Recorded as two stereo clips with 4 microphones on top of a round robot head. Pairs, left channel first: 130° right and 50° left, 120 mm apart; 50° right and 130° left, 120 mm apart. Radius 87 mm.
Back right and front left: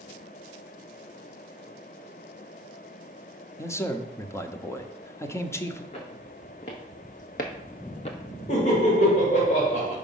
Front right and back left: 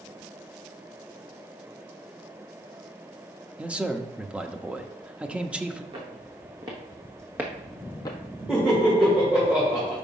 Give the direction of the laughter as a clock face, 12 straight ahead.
5 o'clock.